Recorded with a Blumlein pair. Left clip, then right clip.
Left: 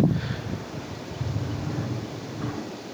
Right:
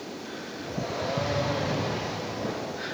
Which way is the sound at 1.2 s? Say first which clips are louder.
Right 5 dB; 55° left.